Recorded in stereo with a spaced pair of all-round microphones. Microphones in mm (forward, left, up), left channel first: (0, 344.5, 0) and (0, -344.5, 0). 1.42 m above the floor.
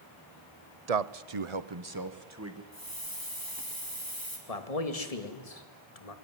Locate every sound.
0.9 s a man speaking: 70° right (ahead or behind), 0.8 m; by 2.6 s 20° right (ahead or behind), 1.7 m
2.7 s a hiss: 30° right (ahead or behind), 3.5 m
4.5 s a man speaking: 65° left (ahead or behind), 2 m